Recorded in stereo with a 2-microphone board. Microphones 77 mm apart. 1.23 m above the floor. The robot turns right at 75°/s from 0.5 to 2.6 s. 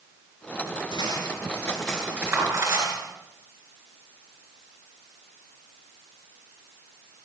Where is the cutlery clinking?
75° left (ahead or behind), 9.5 m; by 3.0 s 50° right (ahead or behind), 9.5 m.